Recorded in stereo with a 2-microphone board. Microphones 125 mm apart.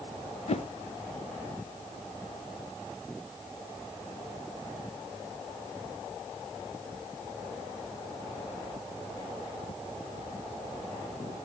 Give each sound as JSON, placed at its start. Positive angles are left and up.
{"t": 0.5, "sound": "a whoosh", "side_deg": 60, "distance_m": 0.7}